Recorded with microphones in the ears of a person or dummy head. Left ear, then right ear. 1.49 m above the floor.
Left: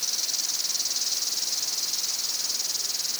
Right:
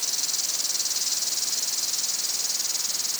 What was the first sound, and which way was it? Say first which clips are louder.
An insect: even; 5° left (ahead or behind).